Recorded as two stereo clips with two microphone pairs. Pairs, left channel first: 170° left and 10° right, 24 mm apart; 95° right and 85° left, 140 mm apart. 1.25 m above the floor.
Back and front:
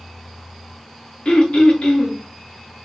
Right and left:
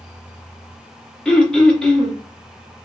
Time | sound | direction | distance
1.2 | throat clearing | 175° right | 0.7 m